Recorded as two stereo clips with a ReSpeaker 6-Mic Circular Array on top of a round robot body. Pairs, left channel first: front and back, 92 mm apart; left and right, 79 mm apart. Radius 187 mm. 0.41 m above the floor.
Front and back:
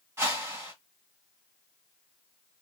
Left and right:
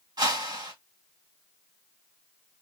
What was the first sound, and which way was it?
A whoosh, 115° right.